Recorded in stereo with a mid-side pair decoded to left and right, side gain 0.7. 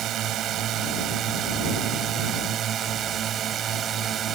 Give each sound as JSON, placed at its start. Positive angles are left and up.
{"t": 0.0, "sound": "a drone", "azimuth_deg": -50}